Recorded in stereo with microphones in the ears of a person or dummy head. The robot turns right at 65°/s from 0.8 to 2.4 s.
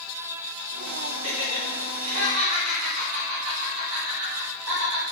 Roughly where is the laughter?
Right.